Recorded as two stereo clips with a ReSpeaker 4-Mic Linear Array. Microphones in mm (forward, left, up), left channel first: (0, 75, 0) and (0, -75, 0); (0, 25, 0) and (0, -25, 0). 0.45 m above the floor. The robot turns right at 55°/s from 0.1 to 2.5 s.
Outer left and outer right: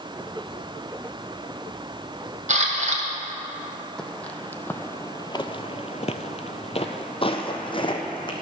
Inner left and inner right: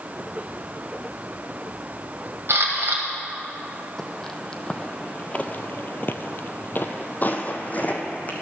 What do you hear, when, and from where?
2.5 s a camera shutter: 60° right (ahead or behind), 2.0 m
4.0 s footsteps: 5° left (ahead or behind), 1.1 m; by 8.3 s 35° left (ahead or behind), 1.5 m